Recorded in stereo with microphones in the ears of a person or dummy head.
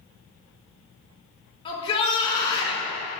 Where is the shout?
30° left (ahead or behind), 3.5 m.